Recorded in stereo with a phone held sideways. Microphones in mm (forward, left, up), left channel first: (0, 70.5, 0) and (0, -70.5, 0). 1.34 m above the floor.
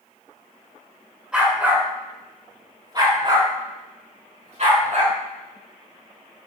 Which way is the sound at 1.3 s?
5° right (ahead or behind).